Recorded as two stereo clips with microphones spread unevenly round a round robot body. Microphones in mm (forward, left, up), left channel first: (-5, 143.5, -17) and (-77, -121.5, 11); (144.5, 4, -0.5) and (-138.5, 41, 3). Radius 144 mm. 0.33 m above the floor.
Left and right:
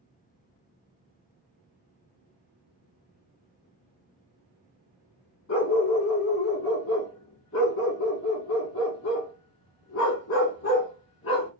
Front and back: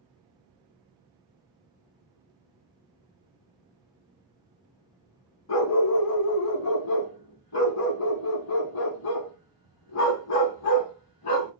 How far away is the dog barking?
About 0.9 m.